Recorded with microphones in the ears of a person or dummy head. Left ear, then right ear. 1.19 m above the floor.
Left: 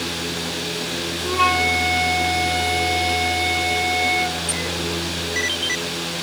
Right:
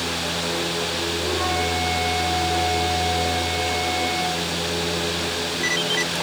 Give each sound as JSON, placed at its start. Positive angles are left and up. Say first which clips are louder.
{"t": 1.2, "sound": "a flute", "louder": "left 8 dB", "side_deg": 70, "distance_m": 2.0}